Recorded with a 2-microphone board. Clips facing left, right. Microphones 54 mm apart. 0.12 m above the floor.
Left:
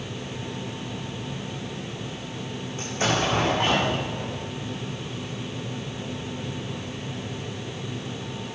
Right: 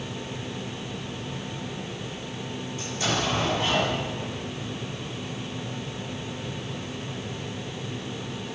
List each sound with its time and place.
2.8 s an explosion: 45° left (ahead or behind), 7 m